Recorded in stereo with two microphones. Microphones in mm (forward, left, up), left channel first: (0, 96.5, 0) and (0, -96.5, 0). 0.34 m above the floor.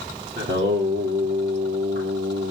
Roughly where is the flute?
No flute in this recording.